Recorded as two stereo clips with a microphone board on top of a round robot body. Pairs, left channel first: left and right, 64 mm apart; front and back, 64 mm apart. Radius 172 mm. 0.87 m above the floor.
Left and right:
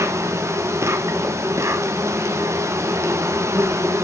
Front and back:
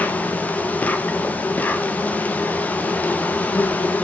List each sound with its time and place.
0.0 s an insect: 60° right, 1.5 m